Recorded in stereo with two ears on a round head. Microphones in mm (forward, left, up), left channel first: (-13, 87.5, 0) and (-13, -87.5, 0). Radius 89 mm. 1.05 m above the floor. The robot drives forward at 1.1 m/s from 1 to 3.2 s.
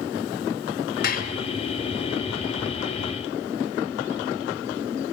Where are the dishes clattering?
55° left (ahead or behind), 2.5 m; by 1.4 s 50° left (ahead or behind), 2.5 m.